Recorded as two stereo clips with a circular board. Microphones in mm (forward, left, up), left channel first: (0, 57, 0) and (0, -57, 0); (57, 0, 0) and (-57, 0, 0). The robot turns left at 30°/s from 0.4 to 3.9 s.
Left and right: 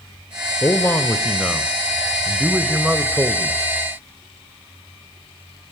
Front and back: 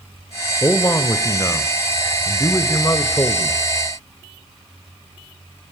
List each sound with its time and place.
0.6 s a man speaking: 45° left, 1.0 m; by 3.6 s 45° right, 1.0 m